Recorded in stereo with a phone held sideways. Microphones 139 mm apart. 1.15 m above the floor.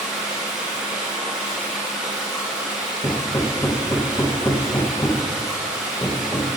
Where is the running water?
5° right (ahead or behind), 3.5 m.